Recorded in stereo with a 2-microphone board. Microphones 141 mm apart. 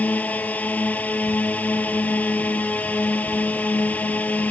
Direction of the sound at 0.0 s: 10° left (ahead or behind).